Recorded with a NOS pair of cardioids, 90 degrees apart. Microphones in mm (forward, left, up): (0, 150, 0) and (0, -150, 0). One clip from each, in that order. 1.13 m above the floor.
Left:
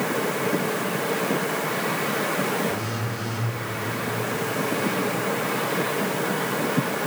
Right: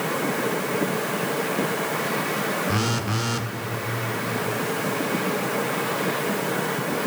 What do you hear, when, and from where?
2.7 s a phone buzzing: 65° right, 1.0 m